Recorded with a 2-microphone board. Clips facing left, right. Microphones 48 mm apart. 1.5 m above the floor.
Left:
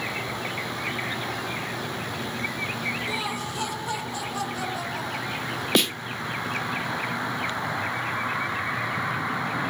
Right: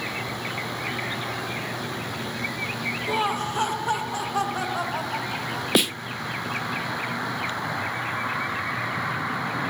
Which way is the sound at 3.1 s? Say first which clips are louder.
Right 5 dB; 40° right (ahead or behind).